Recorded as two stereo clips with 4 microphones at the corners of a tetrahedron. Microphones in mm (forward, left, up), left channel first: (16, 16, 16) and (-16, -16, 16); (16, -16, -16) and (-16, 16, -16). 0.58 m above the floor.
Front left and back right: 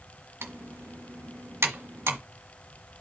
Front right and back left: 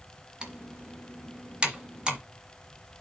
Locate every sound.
0.4 s typing on a keyboard: 155° right, 1.8 m